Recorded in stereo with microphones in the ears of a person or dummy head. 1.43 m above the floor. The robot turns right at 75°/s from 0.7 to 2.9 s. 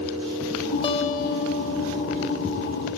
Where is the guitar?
25° left, 1.4 m; by 2.4 s 145° left, 1.4 m.